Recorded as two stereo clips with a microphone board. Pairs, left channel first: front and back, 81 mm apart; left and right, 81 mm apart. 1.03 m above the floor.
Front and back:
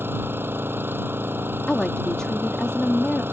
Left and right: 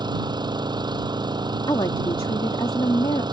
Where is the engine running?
115° right.